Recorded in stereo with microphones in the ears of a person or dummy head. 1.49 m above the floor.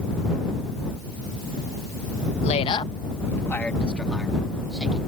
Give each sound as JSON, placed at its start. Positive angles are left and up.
{"t": 2.4, "sound": "a woman speaking", "side_deg": 40}